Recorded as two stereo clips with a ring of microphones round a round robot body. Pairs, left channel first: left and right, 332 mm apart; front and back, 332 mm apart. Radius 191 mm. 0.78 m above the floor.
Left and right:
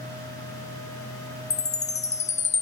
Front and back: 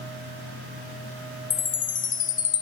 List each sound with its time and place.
1.5 s a chime: 40° left, 0.9 m